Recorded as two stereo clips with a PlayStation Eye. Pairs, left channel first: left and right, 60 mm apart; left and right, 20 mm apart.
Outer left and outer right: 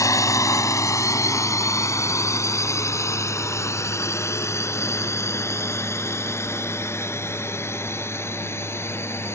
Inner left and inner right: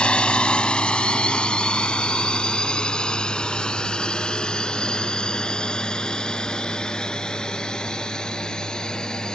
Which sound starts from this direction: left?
A drone, at 0.0 s.